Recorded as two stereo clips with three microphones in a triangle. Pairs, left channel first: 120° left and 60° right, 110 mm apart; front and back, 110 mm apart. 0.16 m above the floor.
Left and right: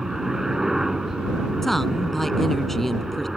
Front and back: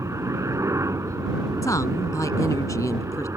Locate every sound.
0.0 s a helicopter: 145° right
1.6 s a woman speaking: 35° left